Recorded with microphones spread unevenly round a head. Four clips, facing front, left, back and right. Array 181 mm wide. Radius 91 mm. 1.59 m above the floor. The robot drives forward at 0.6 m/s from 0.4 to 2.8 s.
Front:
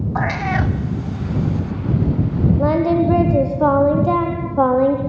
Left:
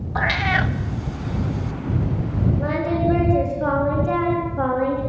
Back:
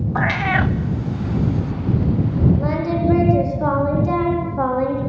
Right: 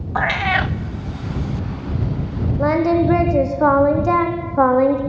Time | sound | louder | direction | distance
0.1 | a cat meowing | right 3 dB, back 1 dB | 30° right | 0.8 m
2.6 | singing | right 8 dB, front 5 dB | 35° right | 4 m